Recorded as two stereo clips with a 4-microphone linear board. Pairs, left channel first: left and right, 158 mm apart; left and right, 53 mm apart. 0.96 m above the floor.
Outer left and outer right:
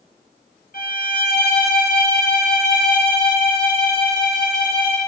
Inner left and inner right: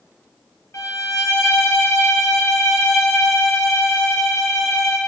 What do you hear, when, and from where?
0.7 s a violin: 70° left (ahead or behind), 0.6 m